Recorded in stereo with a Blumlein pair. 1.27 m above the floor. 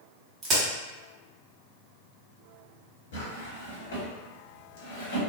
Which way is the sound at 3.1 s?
55° left.